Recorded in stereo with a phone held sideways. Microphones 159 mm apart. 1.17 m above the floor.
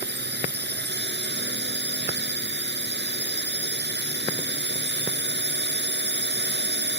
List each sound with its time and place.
0.0 s a drone: 85° right